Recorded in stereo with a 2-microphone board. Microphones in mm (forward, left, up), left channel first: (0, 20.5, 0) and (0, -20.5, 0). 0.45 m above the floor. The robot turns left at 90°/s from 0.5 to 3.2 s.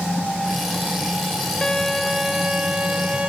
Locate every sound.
1.6 s a violin: 10° left (ahead or behind); by 3.3 s 20° right (ahead or behind)